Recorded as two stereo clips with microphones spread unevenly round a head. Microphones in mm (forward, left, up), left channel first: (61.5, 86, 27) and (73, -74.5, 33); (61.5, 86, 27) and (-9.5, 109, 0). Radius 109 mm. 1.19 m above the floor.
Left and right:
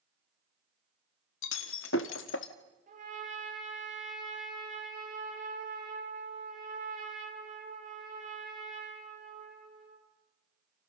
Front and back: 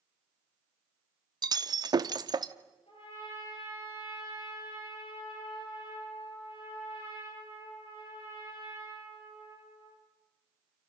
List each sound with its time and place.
1.4 s breaking glass: 120° left, 1.4 m
2.9 s a trumpet: 45° right, 8.5 m